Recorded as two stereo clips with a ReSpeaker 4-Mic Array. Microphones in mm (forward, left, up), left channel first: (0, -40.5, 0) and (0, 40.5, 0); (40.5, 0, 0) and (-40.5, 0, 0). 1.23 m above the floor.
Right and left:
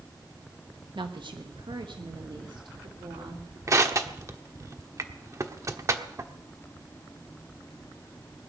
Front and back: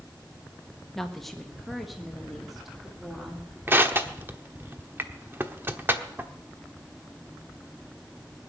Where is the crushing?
125° left, 1.1 m.